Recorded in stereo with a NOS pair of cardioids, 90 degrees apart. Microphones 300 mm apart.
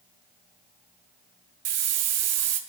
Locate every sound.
1.6 s a hiss: 60° right, 0.6 m